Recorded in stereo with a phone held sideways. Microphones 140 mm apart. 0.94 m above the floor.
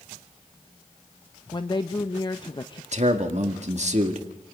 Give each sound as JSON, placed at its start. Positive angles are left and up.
{"t": 1.5, "sound": "a woman speaking", "side_deg": 30, "distance_m": 0.7}
{"t": 2.9, "sound": "a man speaking", "side_deg": -50, "distance_m": 2.0}